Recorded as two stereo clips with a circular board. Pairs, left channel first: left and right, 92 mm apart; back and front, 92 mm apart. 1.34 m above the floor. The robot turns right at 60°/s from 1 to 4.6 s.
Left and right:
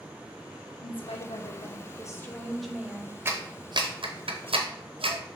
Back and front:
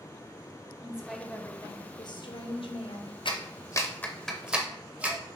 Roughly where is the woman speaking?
Left.